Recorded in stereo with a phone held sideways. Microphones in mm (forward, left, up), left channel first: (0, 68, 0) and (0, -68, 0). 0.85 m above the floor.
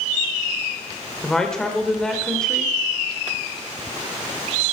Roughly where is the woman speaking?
Centre.